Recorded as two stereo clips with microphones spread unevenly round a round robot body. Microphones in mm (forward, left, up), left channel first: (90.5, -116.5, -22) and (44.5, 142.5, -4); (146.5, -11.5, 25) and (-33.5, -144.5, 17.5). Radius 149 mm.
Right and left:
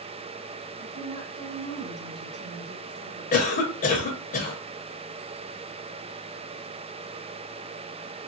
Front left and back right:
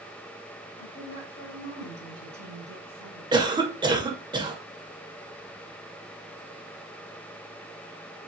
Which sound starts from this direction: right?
A cough, at 3.3 s.